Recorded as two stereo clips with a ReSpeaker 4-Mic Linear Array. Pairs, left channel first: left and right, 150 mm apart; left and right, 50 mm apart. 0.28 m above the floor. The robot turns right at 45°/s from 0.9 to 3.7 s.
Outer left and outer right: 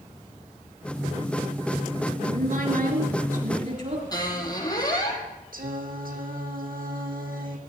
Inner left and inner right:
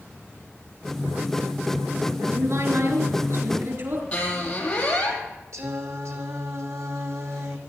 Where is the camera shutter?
No camera shutter in this recording.